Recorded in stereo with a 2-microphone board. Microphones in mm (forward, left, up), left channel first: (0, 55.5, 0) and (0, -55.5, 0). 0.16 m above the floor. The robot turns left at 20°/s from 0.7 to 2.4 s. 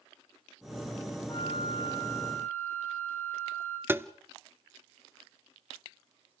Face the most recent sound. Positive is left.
turn(degrees=-20)  # may be behind; listen again after turning